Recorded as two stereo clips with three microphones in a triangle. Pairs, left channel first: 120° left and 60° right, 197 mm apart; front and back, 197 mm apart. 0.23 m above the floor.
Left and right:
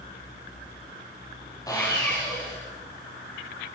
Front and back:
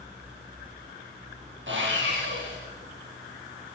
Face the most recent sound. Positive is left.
turn(degrees=-170)